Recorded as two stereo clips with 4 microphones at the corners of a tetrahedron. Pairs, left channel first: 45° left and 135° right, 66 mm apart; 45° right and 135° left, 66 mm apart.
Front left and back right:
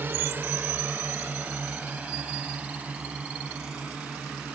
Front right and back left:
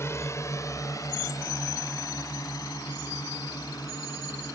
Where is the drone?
85° right; by 4.5 s 60° right.